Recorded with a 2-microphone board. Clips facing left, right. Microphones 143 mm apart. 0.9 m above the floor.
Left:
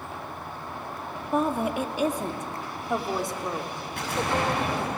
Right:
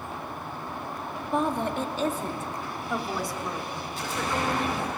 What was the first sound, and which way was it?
A woman speaking, 5° left (ahead or behind).